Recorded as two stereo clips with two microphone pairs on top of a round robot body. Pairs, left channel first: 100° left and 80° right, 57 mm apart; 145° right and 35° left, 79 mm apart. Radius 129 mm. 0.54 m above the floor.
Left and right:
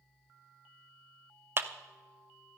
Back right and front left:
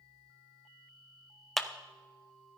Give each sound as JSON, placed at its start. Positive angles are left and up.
{"t": 1.6, "sound": "a clap", "azimuth_deg": -60, "distance_m": 1.0}